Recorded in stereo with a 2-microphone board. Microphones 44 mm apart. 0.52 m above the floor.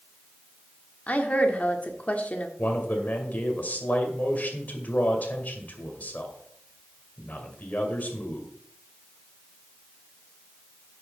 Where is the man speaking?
40° left (ahead or behind), 2.5 m.